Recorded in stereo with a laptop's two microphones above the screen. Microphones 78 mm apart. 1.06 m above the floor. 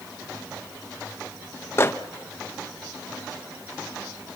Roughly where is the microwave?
Left.